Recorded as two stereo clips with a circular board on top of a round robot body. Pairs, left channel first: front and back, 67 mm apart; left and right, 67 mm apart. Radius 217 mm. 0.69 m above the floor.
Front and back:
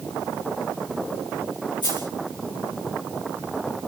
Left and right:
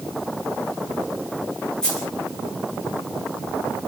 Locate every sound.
1.8 s a dropped coin: 10° left, 6 m